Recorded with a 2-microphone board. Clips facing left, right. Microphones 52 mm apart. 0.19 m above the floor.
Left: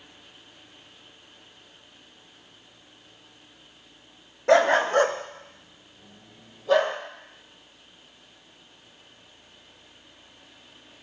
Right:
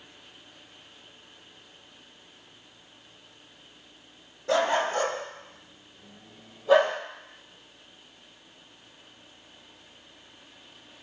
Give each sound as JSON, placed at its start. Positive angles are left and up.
{"t": 4.5, "sound": "a dog barking", "side_deg": 70, "distance_m": 0.7}